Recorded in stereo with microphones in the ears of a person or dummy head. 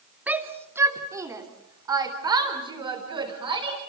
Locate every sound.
0.3 s a shout: 5° right (ahead or behind), 1.9 m; by 3.8 s 25° right (ahead or behind), 5 m